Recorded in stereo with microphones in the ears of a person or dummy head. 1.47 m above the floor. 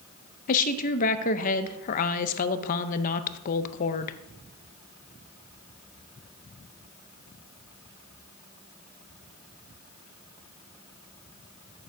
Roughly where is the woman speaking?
Left.